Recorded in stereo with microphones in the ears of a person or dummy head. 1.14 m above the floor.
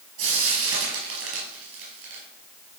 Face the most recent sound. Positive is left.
turn(degrees=-80)